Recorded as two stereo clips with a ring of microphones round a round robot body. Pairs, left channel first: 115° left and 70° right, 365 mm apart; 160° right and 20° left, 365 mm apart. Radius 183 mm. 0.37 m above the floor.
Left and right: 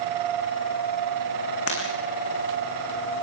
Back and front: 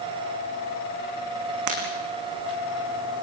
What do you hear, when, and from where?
1.7 s breaking glass: 65° left, 7.5 m